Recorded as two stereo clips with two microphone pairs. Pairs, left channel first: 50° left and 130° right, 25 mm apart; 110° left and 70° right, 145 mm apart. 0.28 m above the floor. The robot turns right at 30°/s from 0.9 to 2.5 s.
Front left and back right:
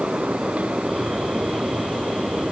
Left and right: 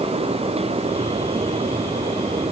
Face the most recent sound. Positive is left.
No sound to turn to.